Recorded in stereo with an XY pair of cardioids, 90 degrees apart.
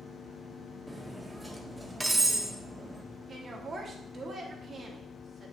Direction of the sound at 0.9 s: 10° right.